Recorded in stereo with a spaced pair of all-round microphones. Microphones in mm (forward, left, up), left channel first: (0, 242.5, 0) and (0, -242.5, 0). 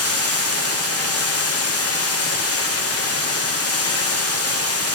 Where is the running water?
30° left (ahead or behind), 0.8 m.